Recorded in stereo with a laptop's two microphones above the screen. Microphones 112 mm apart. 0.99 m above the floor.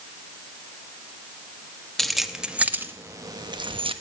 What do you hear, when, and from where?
2.0 s keys jangling: 5° left (ahead or behind), 1.3 m; by 3.9 s 55° right (ahead or behind), 1.0 m